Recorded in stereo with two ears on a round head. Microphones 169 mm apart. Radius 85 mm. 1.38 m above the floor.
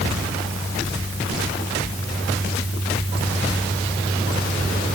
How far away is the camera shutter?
No camera shutter in this recording.